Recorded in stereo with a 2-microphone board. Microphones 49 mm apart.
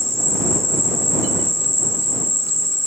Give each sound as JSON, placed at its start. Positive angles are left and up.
{"t": 0.0, "sound": "an insect", "side_deg": -85}